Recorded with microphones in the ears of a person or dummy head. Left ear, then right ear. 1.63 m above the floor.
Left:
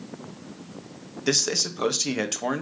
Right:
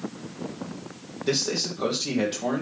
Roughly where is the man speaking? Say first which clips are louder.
Left 2 dB; left.